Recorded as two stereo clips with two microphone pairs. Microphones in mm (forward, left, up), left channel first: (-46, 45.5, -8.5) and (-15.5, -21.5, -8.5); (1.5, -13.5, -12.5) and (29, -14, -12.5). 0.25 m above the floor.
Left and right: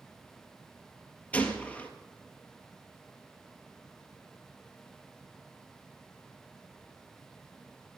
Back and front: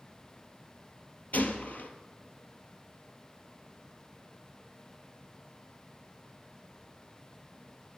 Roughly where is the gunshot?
Behind.